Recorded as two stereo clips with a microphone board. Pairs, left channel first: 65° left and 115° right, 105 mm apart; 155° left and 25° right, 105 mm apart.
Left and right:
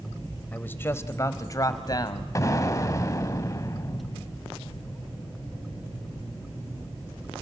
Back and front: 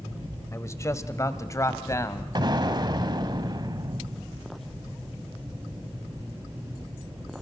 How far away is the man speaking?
About 1.4 m.